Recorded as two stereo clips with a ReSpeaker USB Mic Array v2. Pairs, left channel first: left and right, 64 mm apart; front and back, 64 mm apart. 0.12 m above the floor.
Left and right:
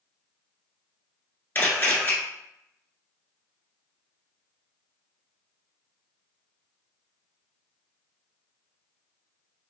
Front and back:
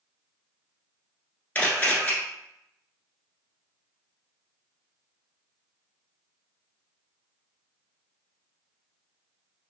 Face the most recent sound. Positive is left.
turn(degrees=50)